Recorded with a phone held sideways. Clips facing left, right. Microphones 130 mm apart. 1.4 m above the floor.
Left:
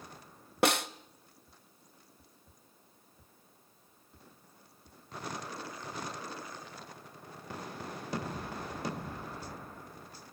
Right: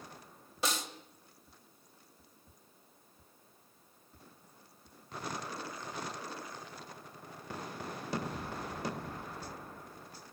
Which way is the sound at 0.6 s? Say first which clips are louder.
Left 8 dB; 65° left (ahead or behind).